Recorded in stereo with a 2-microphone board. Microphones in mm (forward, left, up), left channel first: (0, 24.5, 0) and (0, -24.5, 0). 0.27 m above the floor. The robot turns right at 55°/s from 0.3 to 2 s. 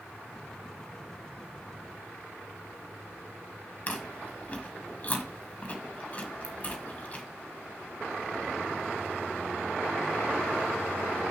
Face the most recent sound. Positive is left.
turn(degrees=30)  # may be behind; listen again after turning